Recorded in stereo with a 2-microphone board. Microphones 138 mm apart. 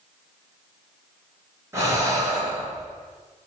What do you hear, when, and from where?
1.7 s breathing: 20° right (ahead or behind), 2 m